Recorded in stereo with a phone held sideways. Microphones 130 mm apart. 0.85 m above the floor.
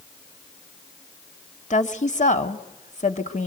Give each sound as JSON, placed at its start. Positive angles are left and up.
{"t": 1.7, "sound": "a woman speaking", "side_deg": 65, "distance_m": 1.5}